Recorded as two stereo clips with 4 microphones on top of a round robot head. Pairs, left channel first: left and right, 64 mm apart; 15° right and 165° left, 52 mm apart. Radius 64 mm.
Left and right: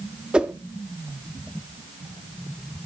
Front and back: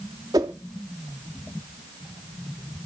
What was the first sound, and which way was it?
A whoosh, 165° right.